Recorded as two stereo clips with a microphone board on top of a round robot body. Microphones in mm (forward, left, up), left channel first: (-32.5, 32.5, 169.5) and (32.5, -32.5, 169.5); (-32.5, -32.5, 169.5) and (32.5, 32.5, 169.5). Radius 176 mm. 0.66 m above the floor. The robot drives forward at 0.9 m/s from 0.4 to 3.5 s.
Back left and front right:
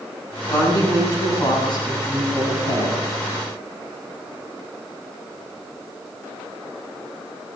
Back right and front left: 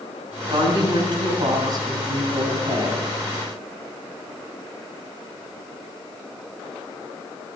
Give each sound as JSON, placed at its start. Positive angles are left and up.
{"t": 0.5, "sound": "a woman speaking", "azimuth_deg": 80, "distance_m": 6.5}